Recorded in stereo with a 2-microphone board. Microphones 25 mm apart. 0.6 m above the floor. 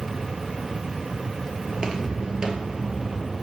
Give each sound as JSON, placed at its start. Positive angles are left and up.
{"t": 1.7, "sound": "footsteps", "side_deg": -30, "distance_m": 0.7}